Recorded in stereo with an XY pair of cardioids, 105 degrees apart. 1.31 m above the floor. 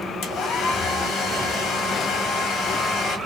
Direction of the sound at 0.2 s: 70° left.